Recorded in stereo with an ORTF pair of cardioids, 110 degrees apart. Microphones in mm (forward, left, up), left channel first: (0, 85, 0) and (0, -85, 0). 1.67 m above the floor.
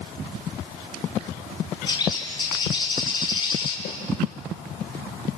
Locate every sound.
1.9 s a bird: 25° left, 5 m
3.9 s a snare drum: 65° left, 6 m